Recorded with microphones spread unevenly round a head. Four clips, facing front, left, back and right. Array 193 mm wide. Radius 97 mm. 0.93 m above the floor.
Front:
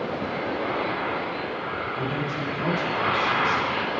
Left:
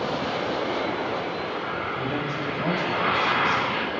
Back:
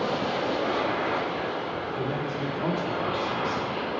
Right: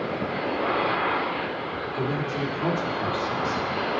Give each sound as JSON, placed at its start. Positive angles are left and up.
{"t": 1.9, "sound": "a man speaking", "azimuth_deg": -90, "distance_m": 2.5}